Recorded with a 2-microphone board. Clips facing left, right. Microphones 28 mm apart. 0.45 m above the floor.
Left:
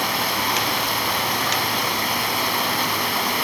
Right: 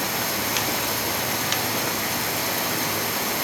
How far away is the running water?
About 3 m.